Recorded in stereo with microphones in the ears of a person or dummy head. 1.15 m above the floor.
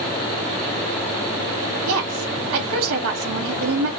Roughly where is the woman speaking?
Right.